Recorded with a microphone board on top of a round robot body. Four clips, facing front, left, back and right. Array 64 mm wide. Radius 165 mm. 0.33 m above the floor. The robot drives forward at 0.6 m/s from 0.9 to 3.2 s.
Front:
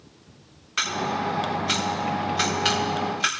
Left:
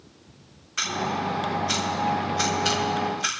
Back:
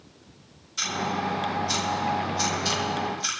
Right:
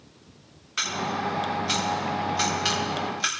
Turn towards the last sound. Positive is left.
turn(degrees=-15)